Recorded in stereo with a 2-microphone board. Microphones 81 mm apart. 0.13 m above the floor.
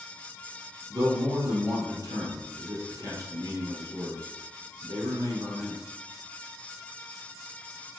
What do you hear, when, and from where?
0.9 s a man speaking: 50° right (ahead or behind), 3 m